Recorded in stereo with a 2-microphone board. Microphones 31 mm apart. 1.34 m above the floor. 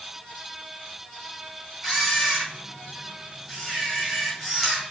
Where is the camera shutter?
Centre (ahead or behind), 1.8 m.